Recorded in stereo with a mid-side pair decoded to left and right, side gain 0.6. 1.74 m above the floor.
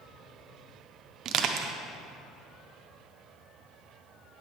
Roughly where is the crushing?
Ahead right.